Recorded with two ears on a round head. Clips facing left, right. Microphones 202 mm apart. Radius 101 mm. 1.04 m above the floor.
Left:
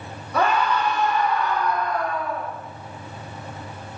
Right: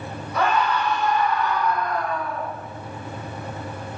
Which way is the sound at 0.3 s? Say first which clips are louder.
Left 1 dB; 70° left (ahead or behind).